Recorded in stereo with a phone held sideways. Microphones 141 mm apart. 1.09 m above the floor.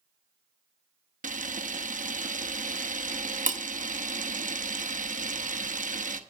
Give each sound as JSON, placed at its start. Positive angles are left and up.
{"t": 1.2, "sound": "a camera shutter", "side_deg": -65, "distance_m": 0.7}